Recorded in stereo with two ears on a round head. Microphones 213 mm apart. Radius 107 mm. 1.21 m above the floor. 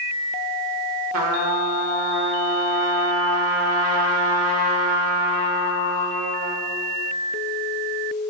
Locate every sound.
1.1 s a trumpet: 75° right (ahead or behind), 0.9 m